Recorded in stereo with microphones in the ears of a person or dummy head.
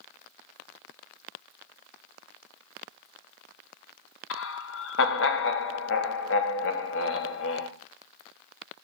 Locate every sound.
4.3 s laughter: 60° left (ahead or behind), 1.0 m